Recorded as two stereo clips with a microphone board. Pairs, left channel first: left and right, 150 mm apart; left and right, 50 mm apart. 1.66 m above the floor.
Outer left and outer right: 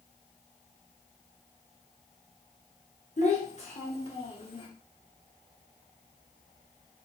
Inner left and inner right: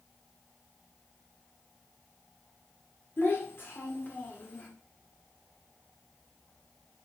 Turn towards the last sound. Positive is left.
turn(degrees=35)  # may be behind; listen again after turning